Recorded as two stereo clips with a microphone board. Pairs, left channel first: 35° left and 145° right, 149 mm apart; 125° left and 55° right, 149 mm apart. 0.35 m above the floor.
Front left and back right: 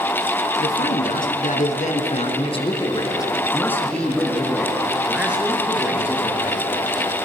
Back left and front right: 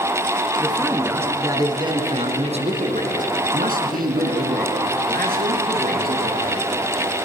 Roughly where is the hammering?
I don't hear hammering.